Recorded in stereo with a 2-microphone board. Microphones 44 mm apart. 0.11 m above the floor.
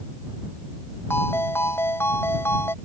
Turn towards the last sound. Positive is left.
turn(degrees=60)  # may be behind; listen again after turning